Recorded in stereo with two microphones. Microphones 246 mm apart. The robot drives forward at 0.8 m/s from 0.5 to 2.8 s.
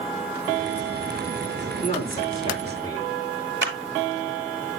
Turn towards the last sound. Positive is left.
turn(degrees=-55)  # may be behind; listen again after turning